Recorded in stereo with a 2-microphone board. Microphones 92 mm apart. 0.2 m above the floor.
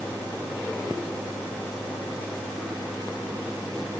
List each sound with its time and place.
Only background noise.